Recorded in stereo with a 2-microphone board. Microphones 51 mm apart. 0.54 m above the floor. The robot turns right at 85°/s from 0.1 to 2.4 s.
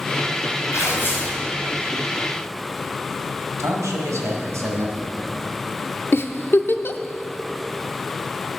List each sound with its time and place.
0.7 s tearing paper: 100° left, 3 m; by 1.4 s 155° left, 3 m
3.6 s a man speaking: 75° right (ahead or behind), 2.5 m
6.1 s a giggle: 50° left (ahead or behind), 0.6 m